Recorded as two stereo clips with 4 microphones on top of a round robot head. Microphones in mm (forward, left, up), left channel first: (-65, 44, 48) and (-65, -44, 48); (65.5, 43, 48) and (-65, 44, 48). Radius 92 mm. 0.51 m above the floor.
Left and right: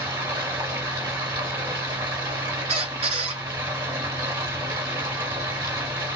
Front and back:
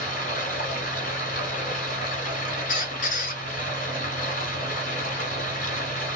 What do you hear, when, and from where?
0.0 s running water: 30° right, 1.6 m
2.7 s a squeak: 40° right, 0.7 m